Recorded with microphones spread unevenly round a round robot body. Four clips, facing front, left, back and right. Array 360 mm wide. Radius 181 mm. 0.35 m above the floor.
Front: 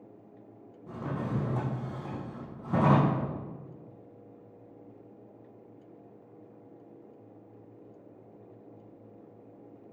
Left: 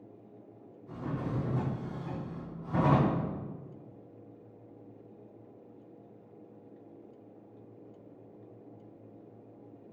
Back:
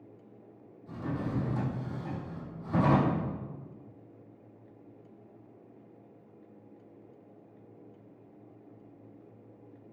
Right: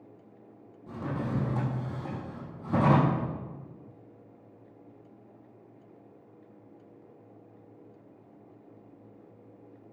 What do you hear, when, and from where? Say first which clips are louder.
0.9 s a drawer: right 3 dB, front 1 dB; 60° right, 3.5 m